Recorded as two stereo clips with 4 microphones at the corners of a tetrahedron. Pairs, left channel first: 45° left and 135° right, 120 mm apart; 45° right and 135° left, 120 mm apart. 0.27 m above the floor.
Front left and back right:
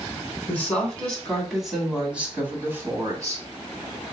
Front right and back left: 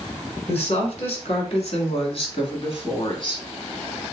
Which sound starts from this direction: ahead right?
A woman speaking, at 0.5 s.